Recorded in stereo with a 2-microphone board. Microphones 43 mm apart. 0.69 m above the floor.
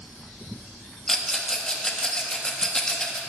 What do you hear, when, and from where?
1.1 s a rattle: 15° left (ahead or behind), 0.9 m